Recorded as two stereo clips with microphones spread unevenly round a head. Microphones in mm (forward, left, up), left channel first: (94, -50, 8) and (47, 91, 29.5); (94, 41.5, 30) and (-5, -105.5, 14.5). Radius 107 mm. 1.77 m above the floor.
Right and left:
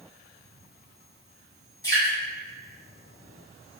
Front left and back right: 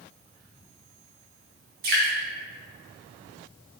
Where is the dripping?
145° right, 0.6 m.